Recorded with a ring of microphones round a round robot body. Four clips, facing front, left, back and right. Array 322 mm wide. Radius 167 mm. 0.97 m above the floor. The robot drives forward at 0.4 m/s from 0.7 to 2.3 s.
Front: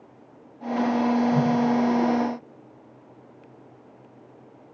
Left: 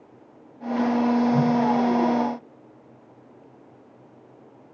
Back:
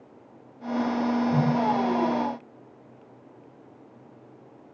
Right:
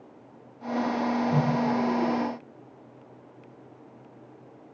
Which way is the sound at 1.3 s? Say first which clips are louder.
Left 5 dB, front 2 dB; 95° right.